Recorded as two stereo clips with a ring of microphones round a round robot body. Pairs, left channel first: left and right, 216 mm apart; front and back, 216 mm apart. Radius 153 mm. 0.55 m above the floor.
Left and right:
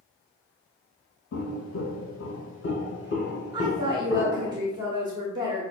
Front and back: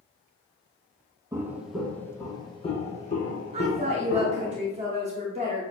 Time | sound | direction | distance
1.3 | footsteps | 105° left | 1.1 m
3.5 | a woman speaking | 150° right | 0.8 m